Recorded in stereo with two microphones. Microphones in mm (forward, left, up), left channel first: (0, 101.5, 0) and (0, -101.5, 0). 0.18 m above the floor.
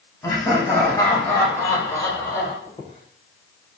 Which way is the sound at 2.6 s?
25° left (ahead or behind).